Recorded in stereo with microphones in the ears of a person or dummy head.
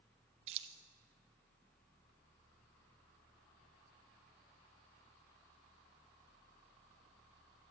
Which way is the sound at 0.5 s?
35° right (ahead or behind).